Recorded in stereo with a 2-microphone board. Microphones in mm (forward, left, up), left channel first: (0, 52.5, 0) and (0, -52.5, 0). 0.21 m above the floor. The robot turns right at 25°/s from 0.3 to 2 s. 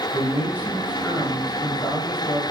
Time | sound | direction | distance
0.1 | a man speaking | 15° right | 6 m